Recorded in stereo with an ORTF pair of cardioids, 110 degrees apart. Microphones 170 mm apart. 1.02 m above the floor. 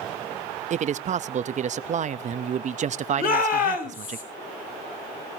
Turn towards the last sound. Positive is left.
turn(degrees=55)